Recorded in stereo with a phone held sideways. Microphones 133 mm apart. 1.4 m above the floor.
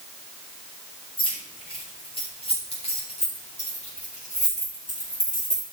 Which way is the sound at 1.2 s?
40° left (ahead or behind).